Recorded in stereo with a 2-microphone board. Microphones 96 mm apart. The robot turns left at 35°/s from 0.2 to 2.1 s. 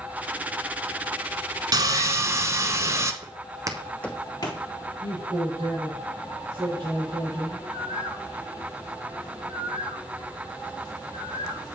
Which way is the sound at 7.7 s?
65° right (ahead or behind).